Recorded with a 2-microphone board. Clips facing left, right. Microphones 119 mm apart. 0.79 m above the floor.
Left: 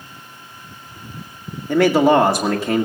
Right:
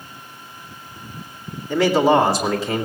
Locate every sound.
1.7 s a man speaking: 60° left (ahead or behind), 1.8 m